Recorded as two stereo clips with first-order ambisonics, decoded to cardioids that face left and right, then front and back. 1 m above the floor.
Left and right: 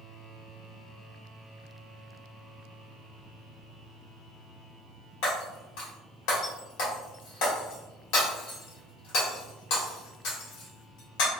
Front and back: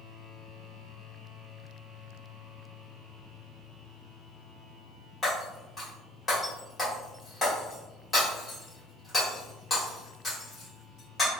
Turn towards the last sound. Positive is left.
turn(degrees=80)